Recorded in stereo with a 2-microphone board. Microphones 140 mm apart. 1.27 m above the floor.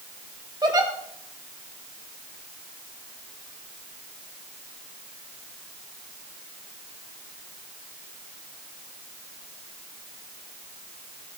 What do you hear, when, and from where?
0.6 s a giggle: 30° right (ahead or behind), 1.9 m